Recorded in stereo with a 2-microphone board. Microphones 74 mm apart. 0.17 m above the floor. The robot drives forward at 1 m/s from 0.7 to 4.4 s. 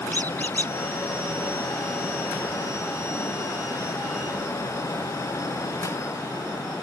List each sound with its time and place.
0.1 s a squeak: 25° left (ahead or behind)